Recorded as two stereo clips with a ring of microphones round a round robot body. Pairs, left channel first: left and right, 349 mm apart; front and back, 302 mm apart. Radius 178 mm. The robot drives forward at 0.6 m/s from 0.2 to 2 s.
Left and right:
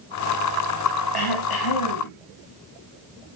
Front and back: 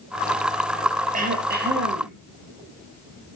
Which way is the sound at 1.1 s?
115° left.